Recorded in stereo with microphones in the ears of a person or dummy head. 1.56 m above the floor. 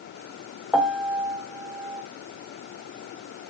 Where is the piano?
Centre (ahead or behind), 1.3 m.